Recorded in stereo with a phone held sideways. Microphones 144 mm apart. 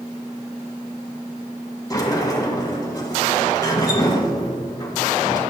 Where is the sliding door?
25° left (ahead or behind), 1.8 m.